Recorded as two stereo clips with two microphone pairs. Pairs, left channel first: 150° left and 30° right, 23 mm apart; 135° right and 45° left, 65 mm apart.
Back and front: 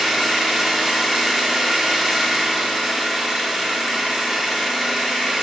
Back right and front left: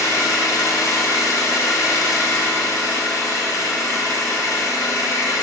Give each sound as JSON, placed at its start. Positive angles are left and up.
{"t": 0.0, "sound": "an engine running", "azimuth_deg": -105, "distance_m": 3.0}